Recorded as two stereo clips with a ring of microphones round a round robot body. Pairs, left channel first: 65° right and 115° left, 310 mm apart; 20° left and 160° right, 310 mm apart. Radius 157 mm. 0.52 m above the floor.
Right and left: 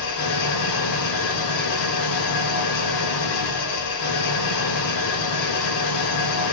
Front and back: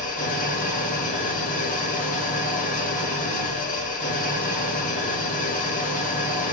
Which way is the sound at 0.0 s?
45° right.